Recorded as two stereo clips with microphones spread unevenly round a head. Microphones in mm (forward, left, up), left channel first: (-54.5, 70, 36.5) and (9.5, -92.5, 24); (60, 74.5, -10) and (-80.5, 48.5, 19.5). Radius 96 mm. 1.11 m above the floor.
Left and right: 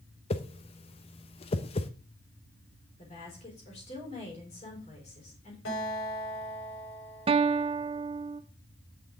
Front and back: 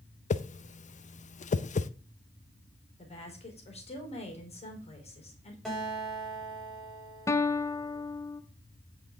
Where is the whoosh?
50° left, 0.6 m.